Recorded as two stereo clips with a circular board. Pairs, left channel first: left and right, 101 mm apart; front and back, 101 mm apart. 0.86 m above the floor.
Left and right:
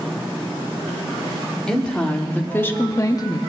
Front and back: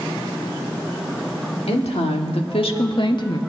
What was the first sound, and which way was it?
A woman speaking, 10° left.